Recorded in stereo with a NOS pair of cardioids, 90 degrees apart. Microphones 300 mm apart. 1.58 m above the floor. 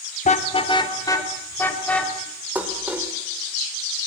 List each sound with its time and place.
0.2 s a car horn: 25° left, 3 m; by 2.1 s 5° left, 5.5 m
2.5 s dishes clattering: 5° right, 4 m